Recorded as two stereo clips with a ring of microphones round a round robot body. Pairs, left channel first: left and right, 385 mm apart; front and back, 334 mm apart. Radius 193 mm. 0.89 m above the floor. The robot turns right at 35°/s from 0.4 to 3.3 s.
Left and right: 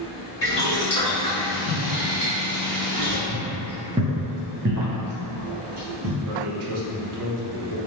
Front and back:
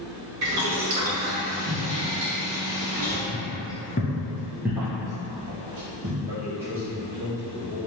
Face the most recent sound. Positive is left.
turn(degrees=-100)